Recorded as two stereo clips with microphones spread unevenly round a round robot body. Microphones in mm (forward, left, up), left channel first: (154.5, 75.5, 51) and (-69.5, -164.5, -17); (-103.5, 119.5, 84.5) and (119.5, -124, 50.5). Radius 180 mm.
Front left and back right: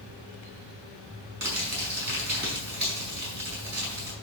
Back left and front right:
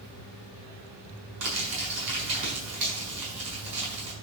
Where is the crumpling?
75° right, 5.5 m.